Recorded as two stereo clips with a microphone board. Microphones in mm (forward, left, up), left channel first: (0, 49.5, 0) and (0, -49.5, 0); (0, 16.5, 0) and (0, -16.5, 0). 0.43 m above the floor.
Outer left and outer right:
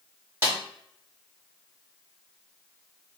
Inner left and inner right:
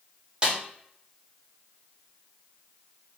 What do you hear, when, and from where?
0.4 s a snare drum: 25° right (ahead or behind), 1.4 m